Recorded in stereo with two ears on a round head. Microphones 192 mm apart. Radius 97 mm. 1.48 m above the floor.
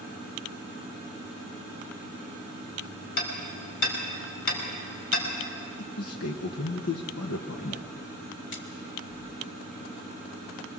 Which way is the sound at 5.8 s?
75° left (ahead or behind).